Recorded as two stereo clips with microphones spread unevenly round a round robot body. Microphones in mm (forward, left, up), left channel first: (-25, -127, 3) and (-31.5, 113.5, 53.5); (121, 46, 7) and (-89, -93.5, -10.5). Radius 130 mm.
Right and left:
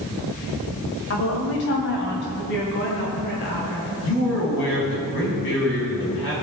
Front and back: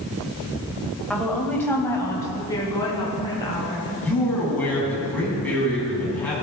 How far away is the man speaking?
About 5 m.